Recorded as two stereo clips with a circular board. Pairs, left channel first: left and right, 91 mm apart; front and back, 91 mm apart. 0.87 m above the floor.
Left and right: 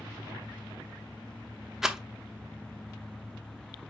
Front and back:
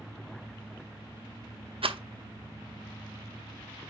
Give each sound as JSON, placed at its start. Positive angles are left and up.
{"t": 1.8, "sound": "a rattle", "azimuth_deg": -175, "distance_m": 0.6}